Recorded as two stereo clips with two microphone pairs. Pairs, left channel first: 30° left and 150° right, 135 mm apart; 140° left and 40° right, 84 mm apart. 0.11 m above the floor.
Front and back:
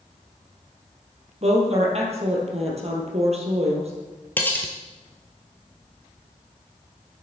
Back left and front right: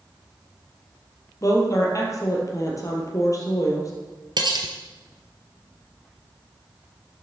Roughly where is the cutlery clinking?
Ahead right.